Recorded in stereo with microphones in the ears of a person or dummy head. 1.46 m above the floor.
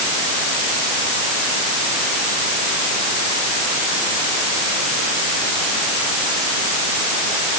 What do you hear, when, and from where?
Only background noise.